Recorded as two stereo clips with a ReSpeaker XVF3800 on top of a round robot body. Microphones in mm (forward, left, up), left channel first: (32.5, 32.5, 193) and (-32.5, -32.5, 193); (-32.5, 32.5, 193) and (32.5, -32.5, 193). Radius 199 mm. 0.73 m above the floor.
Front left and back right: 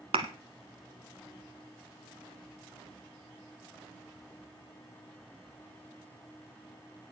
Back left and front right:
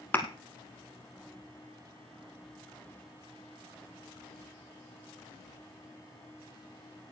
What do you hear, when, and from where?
0.1 s a thud: 155° right, 0.8 m